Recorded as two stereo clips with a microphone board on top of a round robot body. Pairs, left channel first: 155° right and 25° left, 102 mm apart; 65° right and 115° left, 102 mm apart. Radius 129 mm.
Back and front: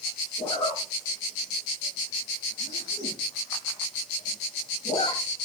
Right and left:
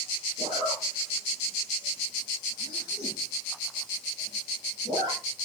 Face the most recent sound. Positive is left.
turn(degrees=160)